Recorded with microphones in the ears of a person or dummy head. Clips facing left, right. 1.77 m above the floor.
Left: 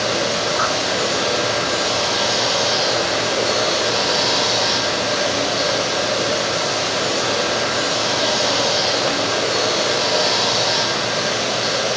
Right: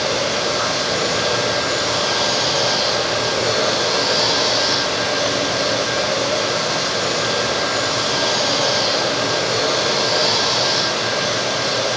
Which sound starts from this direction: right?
Running water, at 0.0 s.